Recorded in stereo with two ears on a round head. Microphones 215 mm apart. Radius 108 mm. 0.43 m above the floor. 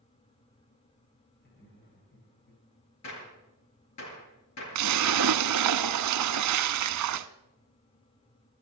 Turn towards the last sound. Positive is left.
turn(degrees=-75)  # may be behind; listen again after turning